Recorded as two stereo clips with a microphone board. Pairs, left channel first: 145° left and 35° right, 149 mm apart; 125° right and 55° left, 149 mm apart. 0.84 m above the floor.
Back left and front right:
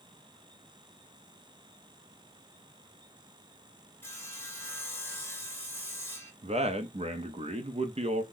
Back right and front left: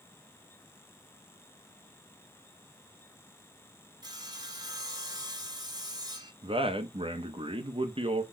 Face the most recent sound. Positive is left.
turn(degrees=5)